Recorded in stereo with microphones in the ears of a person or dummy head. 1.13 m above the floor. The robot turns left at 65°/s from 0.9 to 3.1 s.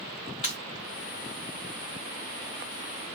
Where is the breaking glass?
25° left (ahead or behind), 0.9 m.